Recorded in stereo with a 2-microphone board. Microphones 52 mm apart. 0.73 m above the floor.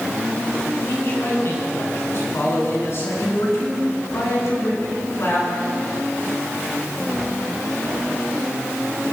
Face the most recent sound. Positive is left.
turn(degrees=55)  # may be behind; listen again after turning